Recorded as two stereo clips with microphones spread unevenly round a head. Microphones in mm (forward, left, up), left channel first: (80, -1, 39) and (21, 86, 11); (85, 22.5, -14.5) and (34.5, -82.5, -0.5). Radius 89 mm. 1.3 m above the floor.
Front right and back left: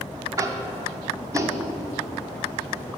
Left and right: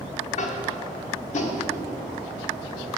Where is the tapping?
60° left, 1.3 m.